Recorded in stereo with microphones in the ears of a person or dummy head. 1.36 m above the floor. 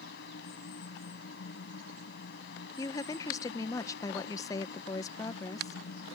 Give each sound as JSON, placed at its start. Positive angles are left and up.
{"t": 0.0, "sound": "a fan", "side_deg": 70}
{"t": 2.8, "sound": "a woman speaking", "side_deg": 20}